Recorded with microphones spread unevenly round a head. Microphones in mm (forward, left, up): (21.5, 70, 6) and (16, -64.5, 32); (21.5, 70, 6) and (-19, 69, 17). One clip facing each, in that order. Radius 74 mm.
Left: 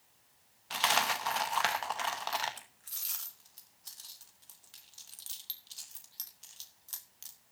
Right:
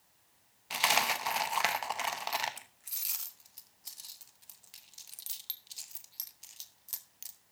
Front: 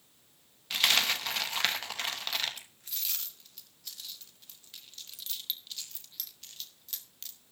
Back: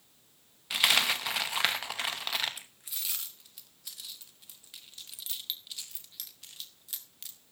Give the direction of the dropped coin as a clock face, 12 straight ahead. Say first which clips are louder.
Even, back 1 dB; 5 o'clock.